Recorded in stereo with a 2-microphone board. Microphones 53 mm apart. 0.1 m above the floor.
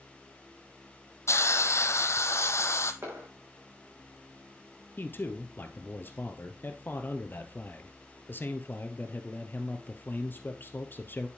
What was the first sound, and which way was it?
A hiss, 60° left (ahead or behind).